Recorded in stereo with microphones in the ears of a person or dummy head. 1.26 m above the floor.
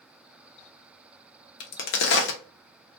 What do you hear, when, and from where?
1.6 s a crack: 65° left (ahead or behind), 0.8 m